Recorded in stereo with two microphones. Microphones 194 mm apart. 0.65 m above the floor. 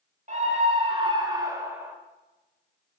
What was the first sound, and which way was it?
A scream, 40° right (ahead or behind).